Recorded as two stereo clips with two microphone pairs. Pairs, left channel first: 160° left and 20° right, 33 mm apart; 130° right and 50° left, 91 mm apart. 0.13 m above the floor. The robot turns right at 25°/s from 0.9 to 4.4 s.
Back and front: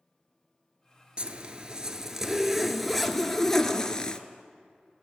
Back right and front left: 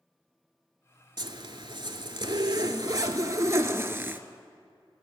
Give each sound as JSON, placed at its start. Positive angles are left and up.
{"t": 1.2, "sound": "a zipper", "azimuth_deg": 35, "distance_m": 0.5}